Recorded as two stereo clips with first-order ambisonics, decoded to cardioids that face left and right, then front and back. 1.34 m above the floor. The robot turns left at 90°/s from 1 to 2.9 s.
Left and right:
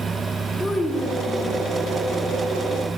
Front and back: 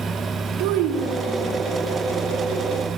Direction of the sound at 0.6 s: 160° left.